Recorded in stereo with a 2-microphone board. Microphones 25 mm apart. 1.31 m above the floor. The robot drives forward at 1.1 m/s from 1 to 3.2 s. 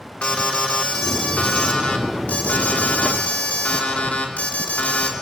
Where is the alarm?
55° left (ahead or behind), 4 m; by 5.1 s 85° left, 3.5 m.